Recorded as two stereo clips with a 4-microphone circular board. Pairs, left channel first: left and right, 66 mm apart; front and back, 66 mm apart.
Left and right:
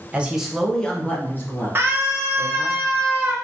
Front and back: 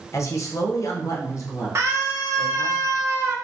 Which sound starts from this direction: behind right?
A scream, at 1.8 s.